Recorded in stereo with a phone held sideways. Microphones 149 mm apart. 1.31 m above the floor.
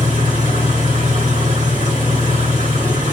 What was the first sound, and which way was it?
An engine running, 60° right (ahead or behind).